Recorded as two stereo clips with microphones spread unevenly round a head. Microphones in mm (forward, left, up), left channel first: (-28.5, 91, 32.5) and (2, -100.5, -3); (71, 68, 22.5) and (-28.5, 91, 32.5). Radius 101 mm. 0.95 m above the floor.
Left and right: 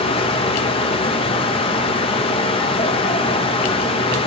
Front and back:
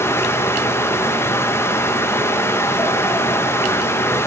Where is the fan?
35° left, 2.0 m.